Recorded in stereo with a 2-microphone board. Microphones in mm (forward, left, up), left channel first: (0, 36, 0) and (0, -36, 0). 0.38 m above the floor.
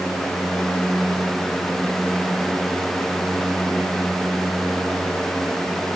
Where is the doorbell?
I don't hear a doorbell.